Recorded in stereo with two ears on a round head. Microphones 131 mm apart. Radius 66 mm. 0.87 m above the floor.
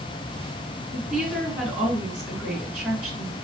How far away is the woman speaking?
About 2.5 m.